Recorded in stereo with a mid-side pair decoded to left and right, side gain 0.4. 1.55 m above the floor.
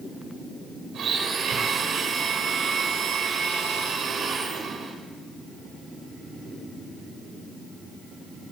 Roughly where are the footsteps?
No footsteps in this recording.